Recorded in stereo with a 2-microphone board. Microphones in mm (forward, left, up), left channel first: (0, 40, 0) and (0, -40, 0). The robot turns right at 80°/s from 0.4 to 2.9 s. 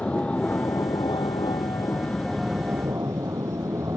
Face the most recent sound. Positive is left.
turn(degrees=-40)  # may be behind; listen again after turning